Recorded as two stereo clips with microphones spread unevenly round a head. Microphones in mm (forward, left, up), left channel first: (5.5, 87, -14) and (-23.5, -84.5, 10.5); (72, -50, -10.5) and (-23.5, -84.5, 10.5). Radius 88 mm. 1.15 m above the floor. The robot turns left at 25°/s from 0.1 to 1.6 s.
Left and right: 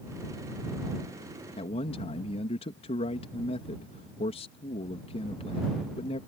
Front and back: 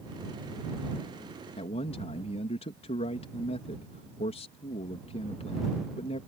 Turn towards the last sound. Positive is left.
turn(degrees=25)